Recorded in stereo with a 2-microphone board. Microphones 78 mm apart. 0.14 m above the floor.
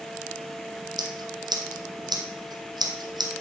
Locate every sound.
1.0 s scissors: 60° right (ahead or behind), 2.5 m